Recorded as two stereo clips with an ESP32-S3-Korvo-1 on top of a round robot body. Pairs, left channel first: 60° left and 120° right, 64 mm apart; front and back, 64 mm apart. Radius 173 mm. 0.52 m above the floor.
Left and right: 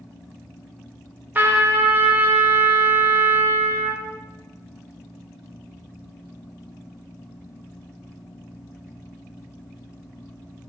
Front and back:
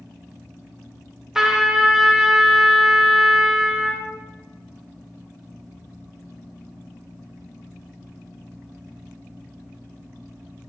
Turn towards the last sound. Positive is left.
turn(degrees=-105)